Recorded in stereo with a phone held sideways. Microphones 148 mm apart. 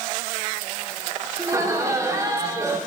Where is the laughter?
20° right (ahead or behind), 2.5 m.